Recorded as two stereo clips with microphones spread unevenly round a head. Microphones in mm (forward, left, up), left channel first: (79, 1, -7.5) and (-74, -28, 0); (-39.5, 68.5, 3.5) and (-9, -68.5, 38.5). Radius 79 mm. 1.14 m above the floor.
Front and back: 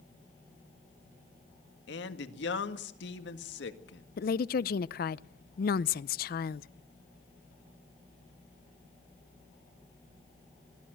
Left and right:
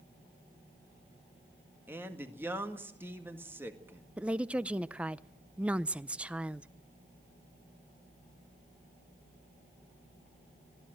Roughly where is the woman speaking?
Ahead.